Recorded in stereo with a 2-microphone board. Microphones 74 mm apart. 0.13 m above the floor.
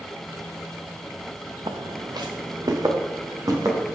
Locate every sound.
1.7 s footsteps: 85° right, 0.8 m; by 4.0 s 45° right (ahead or behind), 2 m